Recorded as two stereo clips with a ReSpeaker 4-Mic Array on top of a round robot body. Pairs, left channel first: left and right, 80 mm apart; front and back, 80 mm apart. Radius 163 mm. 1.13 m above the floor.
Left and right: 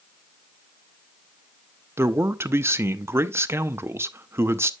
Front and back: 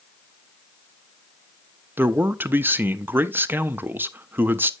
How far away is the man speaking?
About 0.7 m.